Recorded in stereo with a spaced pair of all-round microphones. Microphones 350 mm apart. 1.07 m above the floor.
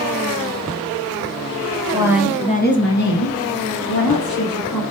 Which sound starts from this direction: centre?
A woman speaking, at 1.9 s.